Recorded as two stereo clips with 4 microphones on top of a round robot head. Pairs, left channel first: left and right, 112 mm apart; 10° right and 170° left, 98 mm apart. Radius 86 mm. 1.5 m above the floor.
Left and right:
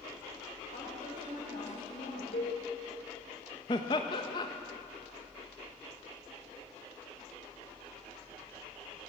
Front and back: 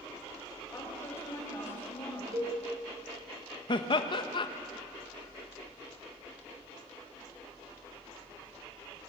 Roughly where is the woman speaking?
Ahead left.